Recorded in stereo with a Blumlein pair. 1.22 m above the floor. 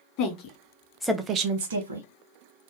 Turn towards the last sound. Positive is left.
turn(degrees=-80)